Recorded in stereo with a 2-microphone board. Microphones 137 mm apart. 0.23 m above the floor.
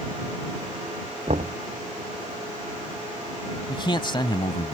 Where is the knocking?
55° right (ahead or behind).